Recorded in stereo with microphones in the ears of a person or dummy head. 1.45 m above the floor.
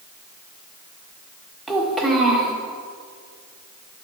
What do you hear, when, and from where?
1.7 s a child speaking: centre (ahead or behind), 1.5 m